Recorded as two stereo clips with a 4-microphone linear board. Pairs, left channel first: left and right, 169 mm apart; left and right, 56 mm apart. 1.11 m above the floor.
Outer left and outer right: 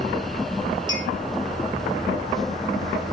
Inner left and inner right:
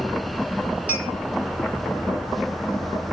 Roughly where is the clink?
Right.